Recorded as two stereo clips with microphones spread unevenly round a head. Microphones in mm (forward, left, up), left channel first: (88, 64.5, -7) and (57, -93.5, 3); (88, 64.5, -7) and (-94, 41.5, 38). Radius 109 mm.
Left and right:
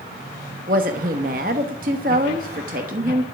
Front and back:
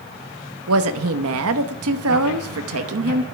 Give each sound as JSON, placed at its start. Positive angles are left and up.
{"t": 0.7, "sound": "a woman speaking", "azimuth_deg": -155, "distance_m": 1.1}